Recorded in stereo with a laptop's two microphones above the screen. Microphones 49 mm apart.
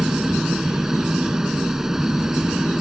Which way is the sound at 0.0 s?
10° right (ahead or behind).